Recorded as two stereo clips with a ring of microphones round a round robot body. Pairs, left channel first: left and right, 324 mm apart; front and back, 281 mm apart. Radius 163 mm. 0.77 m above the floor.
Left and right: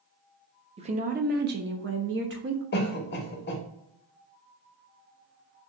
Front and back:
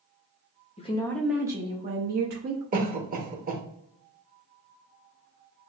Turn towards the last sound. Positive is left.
turn(degrees=135)